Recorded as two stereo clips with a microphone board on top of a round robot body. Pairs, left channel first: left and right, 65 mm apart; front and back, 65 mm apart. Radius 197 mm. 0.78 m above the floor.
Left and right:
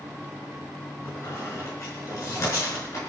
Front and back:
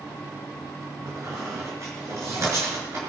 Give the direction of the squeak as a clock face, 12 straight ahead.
8 o'clock.